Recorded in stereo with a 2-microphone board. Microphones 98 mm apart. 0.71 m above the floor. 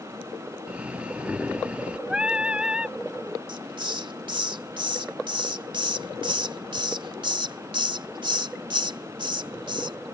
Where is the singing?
10° right (ahead or behind).